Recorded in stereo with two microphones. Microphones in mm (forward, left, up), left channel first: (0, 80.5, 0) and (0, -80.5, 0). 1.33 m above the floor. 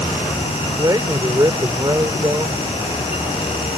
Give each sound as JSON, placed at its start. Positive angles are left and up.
{"t": 0.8, "sound": "a man speaking", "side_deg": -25}